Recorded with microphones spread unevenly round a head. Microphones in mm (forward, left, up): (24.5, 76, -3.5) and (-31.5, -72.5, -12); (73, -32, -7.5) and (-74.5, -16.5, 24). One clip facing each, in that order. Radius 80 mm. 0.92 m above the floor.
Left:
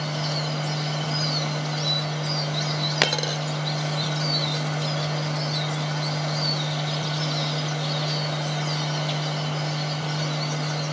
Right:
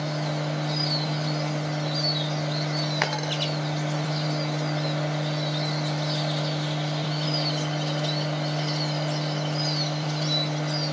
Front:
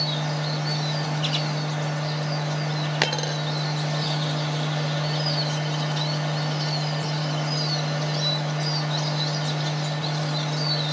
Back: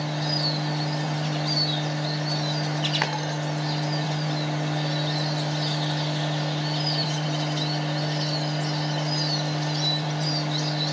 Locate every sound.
0.0 s a machine running: 35° left, 6.5 m
3.0 s a dropped coin: 50° left, 0.6 m